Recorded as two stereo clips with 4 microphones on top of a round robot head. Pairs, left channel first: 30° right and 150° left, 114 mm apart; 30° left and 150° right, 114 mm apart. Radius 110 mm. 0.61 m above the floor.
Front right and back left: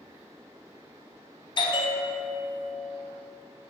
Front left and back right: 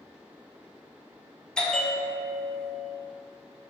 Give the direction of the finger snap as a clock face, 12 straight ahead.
I don't hear a finger snap.